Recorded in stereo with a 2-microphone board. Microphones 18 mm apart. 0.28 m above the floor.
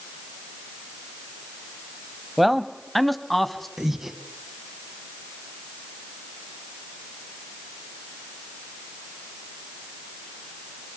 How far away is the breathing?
About 2 m.